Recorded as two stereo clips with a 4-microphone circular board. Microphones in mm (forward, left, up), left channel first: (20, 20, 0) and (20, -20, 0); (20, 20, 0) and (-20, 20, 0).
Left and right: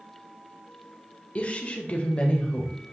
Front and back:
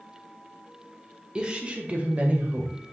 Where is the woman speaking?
125° left, 1.2 m; by 2.7 s 150° left, 1.6 m.